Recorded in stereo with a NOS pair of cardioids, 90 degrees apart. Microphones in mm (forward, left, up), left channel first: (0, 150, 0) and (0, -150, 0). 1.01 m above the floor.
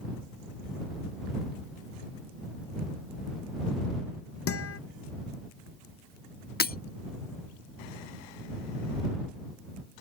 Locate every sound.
4.5 s a guitar: 50° left
6.6 s breaking glass: 30° left